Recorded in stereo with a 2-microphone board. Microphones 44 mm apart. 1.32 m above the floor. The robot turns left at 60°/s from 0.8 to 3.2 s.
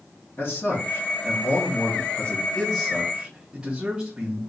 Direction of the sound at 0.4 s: 125° left.